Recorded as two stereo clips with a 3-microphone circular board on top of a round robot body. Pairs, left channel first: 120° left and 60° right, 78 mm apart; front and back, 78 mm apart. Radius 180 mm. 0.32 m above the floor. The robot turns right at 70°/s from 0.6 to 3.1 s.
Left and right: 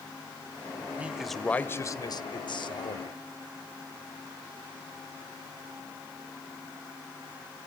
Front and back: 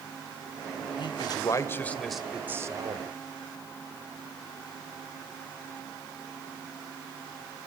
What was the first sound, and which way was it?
A man speaking, 10° left.